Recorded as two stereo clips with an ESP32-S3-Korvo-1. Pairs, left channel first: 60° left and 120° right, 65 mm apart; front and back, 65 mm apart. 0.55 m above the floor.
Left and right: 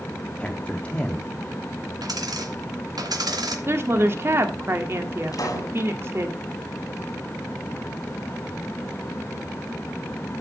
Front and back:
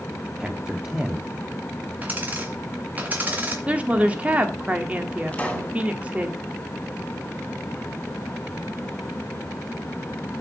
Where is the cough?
No cough in this recording.